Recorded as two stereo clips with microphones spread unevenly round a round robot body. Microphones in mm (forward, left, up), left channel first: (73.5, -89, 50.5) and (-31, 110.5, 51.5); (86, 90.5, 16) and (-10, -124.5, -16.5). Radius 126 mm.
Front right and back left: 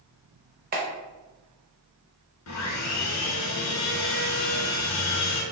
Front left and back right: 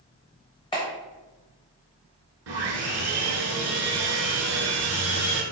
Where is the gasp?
No gasp in this recording.